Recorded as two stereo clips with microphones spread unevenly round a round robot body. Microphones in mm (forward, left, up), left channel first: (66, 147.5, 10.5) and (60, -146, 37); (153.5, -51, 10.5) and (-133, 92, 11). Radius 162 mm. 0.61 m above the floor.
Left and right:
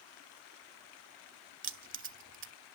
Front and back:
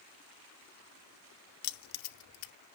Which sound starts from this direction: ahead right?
Keys jangling, at 1.6 s.